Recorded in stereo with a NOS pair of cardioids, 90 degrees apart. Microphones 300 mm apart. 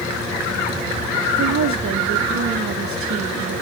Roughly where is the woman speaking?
Ahead right.